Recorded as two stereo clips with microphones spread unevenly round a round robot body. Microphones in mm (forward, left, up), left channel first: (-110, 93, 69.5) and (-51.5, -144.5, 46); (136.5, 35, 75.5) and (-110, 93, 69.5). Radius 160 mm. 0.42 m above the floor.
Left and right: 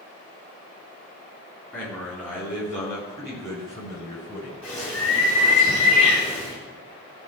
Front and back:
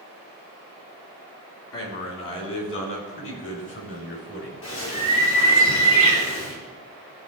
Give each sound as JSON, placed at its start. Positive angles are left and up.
{"t": 1.7, "sound": "a man speaking", "azimuth_deg": 15, "distance_m": 4.0}
{"t": 4.6, "sound": "a bird", "azimuth_deg": 20, "distance_m": 4.5}